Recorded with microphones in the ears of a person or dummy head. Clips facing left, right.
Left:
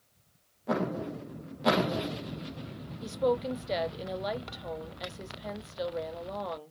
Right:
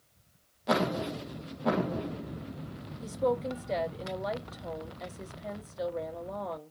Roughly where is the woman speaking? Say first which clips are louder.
Left 1 dB; centre.